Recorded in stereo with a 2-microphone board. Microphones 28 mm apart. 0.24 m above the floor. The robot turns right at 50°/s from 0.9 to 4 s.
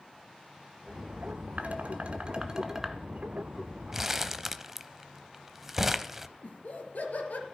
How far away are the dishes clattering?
About 1.7 m.